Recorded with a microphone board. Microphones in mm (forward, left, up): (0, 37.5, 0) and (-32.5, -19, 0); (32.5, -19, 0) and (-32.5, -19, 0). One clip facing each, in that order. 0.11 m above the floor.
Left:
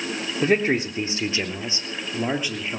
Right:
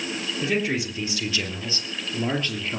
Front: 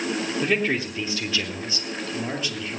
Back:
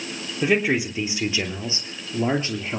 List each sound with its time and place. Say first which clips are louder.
0.4 s a man speaking: left 5 dB, back 5 dB; 100° left, 3.5 m; by 2.8 s 140° left, 3 m